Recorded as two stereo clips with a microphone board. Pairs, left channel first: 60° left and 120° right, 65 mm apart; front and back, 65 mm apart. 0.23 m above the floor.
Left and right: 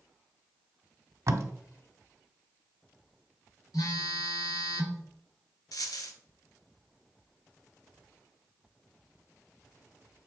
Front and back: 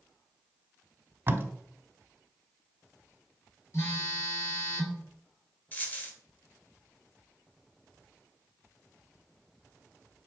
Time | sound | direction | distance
1.3 | tape being pulled | 135° right | 0.8 m
3.7 | a phone buzzing | 45° left | 2.5 m
5.7 | a dropped coin | 65° left | 1.2 m